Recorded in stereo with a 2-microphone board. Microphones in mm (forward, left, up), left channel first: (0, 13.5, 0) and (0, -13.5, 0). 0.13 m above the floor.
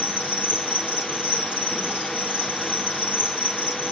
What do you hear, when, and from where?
0.0 s an insect: 85° right, 2 m